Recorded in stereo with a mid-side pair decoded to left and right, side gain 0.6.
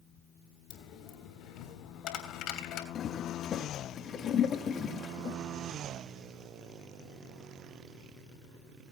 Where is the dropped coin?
60° left, 3 m.